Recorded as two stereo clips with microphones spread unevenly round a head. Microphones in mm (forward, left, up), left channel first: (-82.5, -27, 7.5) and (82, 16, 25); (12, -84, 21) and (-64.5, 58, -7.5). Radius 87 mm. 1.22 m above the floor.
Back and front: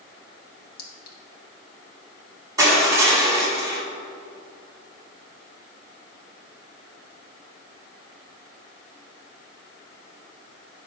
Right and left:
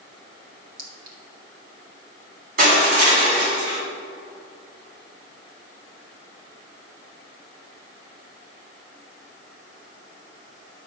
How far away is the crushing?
About 1.8 m.